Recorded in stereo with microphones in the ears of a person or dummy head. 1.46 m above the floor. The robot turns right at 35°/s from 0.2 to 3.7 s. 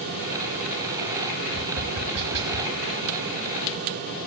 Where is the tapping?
40° right (ahead or behind), 1.4 m; by 2.7 s 50° right (ahead or behind), 1.4 m.